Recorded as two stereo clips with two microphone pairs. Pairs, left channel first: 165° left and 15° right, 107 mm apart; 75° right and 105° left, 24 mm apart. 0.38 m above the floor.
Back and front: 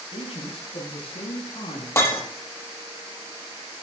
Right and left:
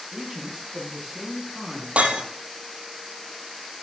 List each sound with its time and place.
0.1 s a man speaking: 165° left, 3.5 m; by 1.9 s straight behind, 5 m
2.0 s breaking glass: 100° left, 5 m